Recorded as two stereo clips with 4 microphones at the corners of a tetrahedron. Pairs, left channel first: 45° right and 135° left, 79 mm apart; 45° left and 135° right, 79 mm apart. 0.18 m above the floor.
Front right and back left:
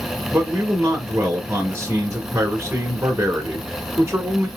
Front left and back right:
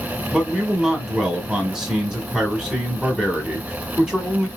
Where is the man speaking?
140° left, 1.4 m.